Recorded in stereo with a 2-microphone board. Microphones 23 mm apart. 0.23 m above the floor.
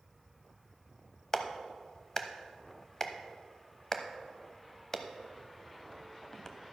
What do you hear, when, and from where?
1.3 s a clap: 25° left (ahead or behind), 0.8 m